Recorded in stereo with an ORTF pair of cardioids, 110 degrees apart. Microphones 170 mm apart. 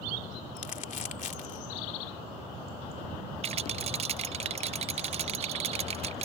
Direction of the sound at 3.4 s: 40° right.